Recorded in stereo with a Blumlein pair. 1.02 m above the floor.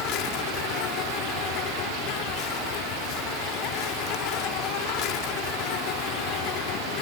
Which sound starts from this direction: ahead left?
An insect, at 0.0 s.